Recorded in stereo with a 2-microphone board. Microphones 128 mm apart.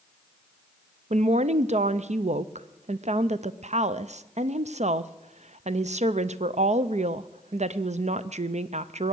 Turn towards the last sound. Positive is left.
turn(degrees=-65)  # may be behind; listen again after turning